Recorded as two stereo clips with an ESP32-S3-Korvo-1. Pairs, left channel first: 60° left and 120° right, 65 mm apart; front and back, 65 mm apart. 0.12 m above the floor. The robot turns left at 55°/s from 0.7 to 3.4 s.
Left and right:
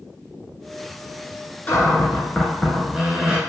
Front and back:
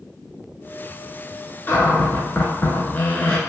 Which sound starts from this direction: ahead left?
A cupboard door, at 1.7 s.